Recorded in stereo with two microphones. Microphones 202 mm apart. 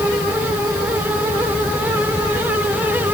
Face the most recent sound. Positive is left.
No sound to turn to.